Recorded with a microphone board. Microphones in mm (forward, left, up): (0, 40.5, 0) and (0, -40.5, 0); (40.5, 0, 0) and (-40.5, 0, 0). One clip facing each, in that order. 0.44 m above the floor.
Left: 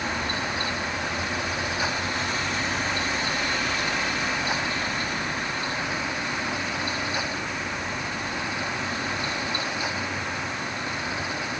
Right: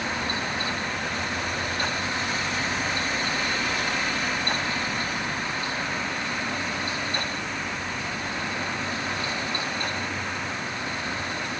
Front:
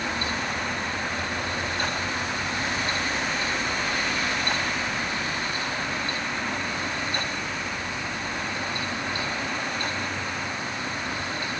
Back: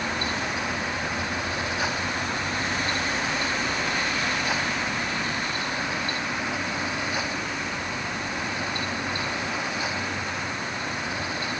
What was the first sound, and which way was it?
Only background noise.